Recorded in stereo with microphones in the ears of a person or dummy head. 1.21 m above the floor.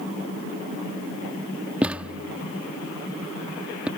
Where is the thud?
5° right (ahead or behind).